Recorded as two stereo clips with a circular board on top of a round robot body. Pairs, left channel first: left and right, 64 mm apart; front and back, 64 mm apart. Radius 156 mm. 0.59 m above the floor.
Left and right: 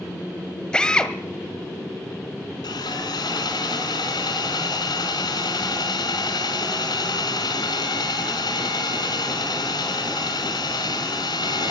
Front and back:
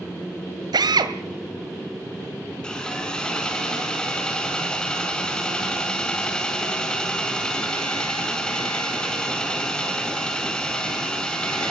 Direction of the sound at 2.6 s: 75° left.